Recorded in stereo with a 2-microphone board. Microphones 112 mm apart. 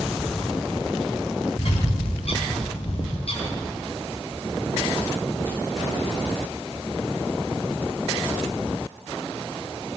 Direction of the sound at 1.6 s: 60° left (ahead or behind).